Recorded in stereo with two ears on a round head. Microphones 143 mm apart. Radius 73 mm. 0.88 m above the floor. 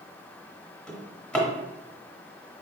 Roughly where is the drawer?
Centre.